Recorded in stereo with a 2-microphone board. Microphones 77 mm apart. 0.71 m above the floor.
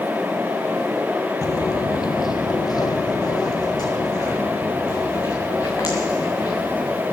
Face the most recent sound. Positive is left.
turn(degrees=50)  # may be behind; listen again after turning